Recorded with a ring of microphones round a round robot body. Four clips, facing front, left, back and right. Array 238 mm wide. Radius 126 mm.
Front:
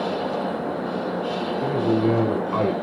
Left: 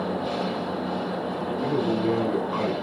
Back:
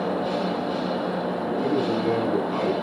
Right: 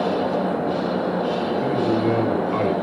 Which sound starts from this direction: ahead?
A man speaking, at 1.6 s.